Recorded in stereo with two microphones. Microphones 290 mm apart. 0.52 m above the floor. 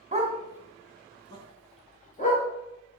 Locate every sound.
0.1 s a dog barking: 25° right (ahead or behind), 1.2 m; by 2.4 s 30° left (ahead or behind), 2.5 m